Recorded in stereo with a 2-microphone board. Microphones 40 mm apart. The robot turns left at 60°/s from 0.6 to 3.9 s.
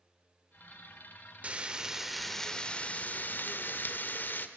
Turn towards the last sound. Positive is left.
turn(degrees=75)